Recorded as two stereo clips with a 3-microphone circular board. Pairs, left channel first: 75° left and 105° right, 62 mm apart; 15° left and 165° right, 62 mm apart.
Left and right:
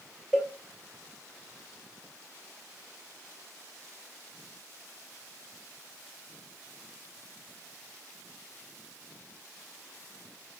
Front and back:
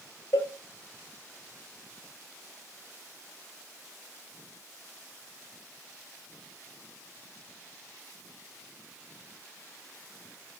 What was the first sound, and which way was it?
A cowbell, 20° right.